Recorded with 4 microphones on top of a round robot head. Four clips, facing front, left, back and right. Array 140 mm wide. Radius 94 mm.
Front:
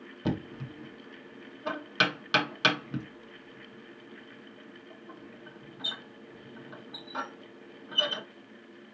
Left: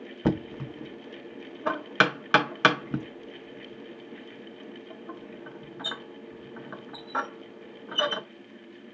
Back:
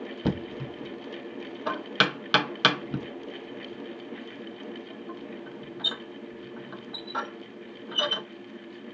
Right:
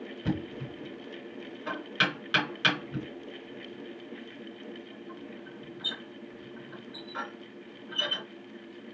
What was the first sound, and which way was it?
Knocking, 110° left.